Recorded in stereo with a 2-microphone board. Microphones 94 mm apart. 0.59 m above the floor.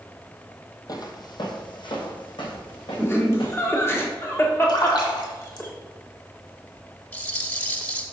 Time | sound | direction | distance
0.9 | footsteps | 45° left (ahead or behind) | 1.1 m
3.0 | laughter | 25° left (ahead or behind) | 1.5 m
4.7 | a splash | 55° left (ahead or behind) | 1.6 m
7.1 | a rattle | 20° left (ahead or behind) | 1.1 m